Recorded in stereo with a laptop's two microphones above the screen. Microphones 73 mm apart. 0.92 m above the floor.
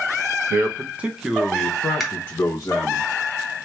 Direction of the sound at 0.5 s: 35° right (ahead or behind).